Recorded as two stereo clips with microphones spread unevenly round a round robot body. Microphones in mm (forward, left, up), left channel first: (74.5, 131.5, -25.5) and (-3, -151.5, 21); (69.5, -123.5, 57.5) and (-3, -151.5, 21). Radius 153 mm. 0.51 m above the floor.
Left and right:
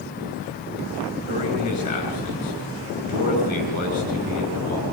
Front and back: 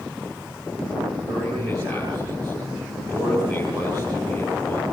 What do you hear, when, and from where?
1.3 s a man speaking: 140° left, 7.5 m